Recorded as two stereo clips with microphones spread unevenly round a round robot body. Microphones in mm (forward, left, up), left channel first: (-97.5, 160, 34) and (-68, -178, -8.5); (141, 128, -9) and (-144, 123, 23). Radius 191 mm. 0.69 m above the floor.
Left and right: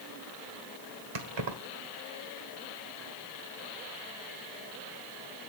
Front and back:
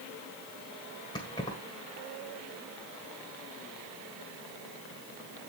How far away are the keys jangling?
About 1.6 m.